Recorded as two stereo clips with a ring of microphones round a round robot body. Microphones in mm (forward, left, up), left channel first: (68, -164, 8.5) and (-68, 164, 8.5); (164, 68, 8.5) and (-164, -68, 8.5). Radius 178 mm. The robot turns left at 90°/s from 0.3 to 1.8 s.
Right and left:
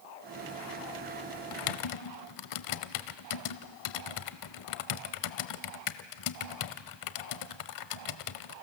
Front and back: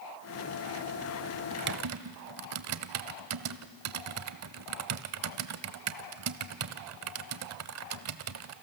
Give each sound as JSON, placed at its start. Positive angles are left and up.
{"t": 1.5, "sound": "typing on a keyboard", "azimuth_deg": -80, "distance_m": 0.9}